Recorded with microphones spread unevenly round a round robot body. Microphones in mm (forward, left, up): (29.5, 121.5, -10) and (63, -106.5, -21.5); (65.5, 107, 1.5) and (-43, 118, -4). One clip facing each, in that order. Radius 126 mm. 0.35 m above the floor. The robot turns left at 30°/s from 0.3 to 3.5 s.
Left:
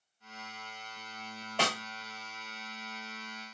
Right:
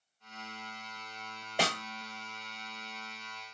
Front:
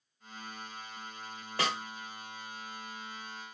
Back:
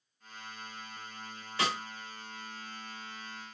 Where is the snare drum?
15° right, 1.2 m; by 1.8 s 20° right, 1.2 m.